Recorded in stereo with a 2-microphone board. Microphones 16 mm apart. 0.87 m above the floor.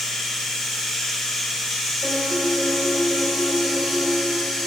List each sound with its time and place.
0.0 s running water: 75° left (ahead or behind), 1.2 m
2.0 s a piano: 75° right (ahead or behind), 0.6 m